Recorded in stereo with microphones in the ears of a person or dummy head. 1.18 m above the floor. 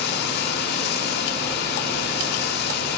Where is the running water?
55° left (ahead or behind), 1.6 m.